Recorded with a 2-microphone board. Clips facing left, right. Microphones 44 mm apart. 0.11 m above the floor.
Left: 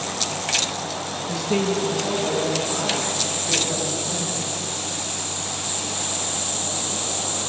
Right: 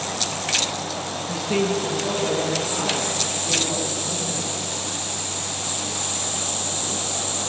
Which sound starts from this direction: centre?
A woman speaking, at 1.3 s.